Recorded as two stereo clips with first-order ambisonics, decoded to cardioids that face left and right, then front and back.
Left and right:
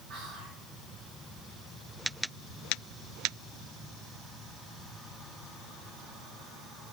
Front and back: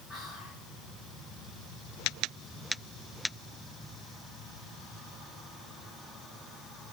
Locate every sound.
0.1 s whispering: 50° right, 3.5 m